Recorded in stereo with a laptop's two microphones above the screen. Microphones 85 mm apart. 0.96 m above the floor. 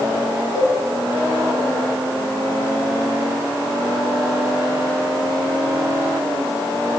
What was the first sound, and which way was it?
A cowbell, 35° right (ahead or behind).